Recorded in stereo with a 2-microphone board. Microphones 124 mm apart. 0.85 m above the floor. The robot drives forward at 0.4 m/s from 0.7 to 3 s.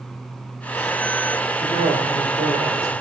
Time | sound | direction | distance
1.6 | a man speaking | 65° right (ahead or behind) | 2 m